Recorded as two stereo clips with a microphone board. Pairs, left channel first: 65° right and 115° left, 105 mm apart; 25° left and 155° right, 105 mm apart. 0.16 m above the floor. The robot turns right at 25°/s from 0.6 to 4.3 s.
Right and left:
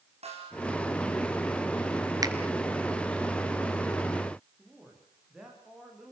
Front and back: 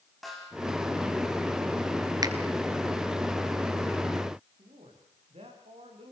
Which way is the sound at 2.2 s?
160° left.